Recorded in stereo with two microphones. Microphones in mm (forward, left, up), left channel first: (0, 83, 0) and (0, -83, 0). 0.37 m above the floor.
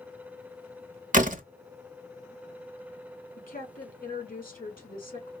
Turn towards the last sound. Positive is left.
turn(degrees=60)  # may be behind; listen again after turning